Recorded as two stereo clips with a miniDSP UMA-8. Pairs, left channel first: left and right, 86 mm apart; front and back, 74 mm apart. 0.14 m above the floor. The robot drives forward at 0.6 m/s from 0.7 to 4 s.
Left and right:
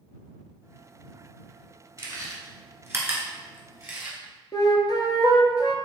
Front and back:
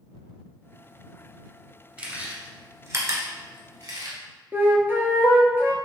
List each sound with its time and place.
2.0 s chewing: 115° right, 1.0 m; by 4.2 s 160° right, 1.8 m
4.5 s a flute: 125° left, 0.6 m